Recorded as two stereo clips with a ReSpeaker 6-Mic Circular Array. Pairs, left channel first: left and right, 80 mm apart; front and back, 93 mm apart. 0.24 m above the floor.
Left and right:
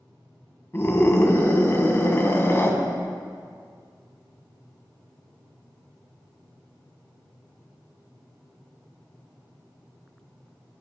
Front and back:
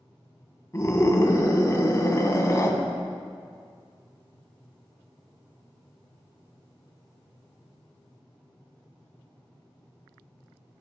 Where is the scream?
45° left, 2 m.